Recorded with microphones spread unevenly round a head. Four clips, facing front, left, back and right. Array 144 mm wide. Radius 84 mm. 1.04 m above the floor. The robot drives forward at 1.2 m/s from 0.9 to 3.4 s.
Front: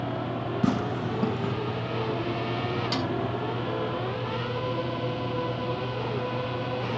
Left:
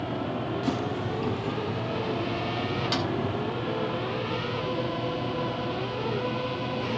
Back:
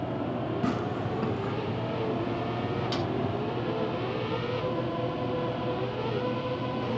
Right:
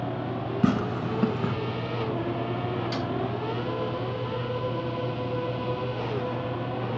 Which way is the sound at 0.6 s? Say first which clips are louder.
Right 3 dB, front 3 dB; 50° right.